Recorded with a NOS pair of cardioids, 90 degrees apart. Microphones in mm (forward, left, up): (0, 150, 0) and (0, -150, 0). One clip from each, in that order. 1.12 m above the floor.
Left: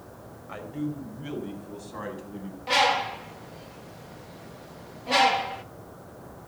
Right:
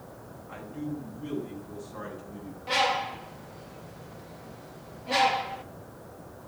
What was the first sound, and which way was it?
A man speaking, 45° left.